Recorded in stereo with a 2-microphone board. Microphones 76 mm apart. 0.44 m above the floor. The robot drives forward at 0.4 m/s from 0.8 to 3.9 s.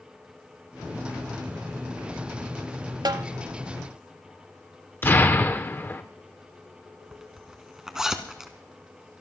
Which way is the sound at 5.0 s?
30° left (ahead or behind).